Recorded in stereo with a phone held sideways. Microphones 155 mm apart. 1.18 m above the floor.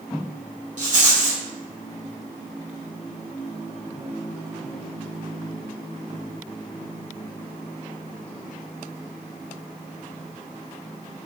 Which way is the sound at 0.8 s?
55° right (ahead or behind).